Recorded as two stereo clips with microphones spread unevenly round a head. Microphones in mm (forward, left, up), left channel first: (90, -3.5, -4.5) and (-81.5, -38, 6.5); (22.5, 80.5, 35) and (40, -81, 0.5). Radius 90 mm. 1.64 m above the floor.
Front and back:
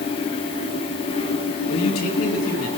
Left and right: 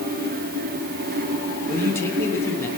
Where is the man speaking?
20° left, 3 m.